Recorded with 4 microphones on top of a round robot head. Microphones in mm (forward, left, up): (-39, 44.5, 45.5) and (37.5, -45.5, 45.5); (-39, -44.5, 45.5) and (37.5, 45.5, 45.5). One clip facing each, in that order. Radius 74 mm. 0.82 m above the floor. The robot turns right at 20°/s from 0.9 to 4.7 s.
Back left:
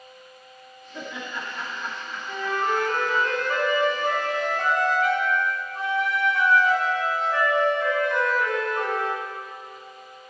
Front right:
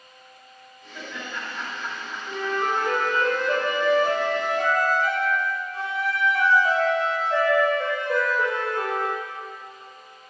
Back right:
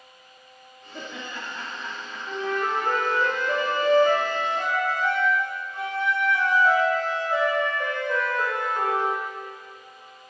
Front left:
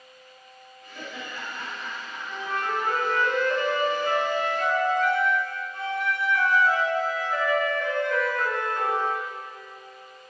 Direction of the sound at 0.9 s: 155° right.